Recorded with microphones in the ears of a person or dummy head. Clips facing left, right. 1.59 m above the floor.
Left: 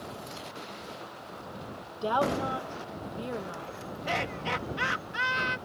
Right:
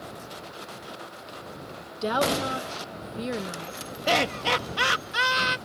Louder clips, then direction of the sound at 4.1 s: Right 8 dB; 70° right (ahead or behind).